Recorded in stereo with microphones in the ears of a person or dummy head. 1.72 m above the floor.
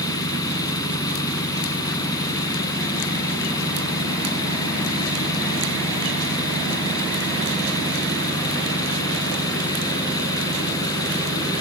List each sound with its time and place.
0.0 s an engine running: 20° left (ahead or behind)